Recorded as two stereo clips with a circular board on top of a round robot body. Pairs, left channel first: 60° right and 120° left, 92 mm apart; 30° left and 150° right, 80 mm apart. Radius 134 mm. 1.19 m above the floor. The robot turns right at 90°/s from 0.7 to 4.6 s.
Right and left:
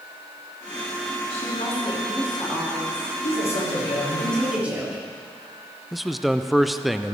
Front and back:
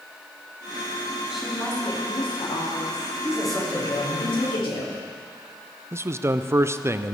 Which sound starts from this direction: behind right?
A man speaking, at 5.9 s.